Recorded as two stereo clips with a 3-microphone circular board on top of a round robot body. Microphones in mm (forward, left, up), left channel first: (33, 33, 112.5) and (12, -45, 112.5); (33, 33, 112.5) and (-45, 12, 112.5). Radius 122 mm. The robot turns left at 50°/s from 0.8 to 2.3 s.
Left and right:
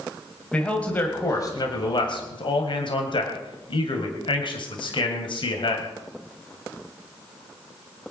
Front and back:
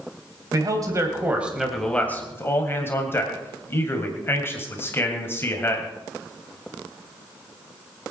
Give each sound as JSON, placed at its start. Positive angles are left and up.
{"t": 0.5, "sound": "a man speaking", "azimuth_deg": 150, "distance_m": 2.5}